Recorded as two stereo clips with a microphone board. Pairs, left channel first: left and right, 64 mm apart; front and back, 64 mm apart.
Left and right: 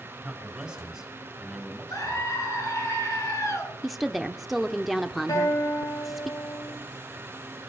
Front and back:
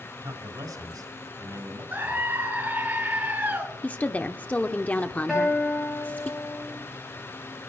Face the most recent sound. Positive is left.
turn(degrees=90)